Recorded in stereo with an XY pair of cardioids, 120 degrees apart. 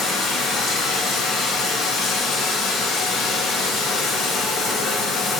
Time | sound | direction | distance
0.0 | running water | 65° left | 9.5 m